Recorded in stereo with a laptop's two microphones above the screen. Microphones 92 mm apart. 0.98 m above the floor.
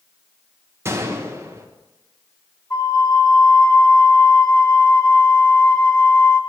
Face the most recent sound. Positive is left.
turn(degrees=35)  # may be behind; listen again after turning